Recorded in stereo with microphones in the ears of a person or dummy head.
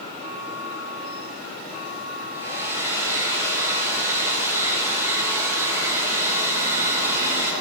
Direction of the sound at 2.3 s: 15° right (ahead or behind).